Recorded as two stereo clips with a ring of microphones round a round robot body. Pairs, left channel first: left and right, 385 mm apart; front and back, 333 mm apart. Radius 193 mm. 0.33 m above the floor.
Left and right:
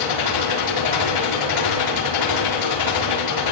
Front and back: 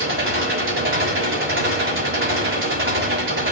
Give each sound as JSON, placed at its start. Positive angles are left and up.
{"t": 0.0, "sound": "an engine running", "azimuth_deg": 125, "distance_m": 5.5}